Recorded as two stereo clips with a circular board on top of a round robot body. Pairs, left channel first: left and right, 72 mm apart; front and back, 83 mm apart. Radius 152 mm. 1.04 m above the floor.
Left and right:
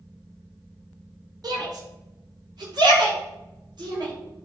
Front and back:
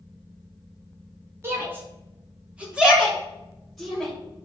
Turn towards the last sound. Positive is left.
turn(degrees=-90)